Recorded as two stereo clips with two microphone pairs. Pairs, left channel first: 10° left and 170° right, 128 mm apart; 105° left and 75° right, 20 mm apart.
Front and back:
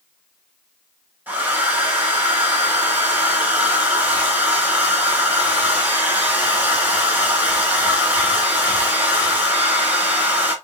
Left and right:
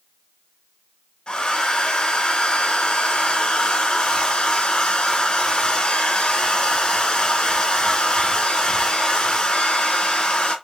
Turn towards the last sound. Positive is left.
turn(degrees=115)